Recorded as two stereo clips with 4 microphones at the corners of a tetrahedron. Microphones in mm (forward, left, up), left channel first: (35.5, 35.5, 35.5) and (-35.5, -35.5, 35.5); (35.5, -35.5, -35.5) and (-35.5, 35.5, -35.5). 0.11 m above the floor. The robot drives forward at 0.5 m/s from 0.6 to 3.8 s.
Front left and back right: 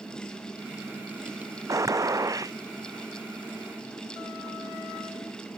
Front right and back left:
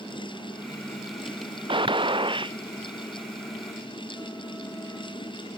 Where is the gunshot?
170° left.